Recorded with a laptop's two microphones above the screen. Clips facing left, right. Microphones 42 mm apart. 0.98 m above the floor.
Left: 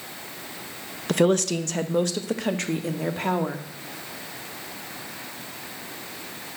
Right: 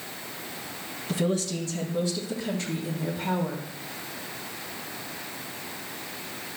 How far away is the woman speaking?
About 0.8 m.